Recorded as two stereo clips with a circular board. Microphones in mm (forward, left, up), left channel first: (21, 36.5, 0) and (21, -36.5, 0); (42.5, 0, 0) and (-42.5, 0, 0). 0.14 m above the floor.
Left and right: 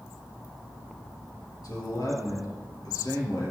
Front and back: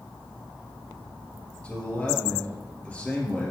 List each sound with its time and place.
1.6 s a man speaking: 75° left, 3.5 m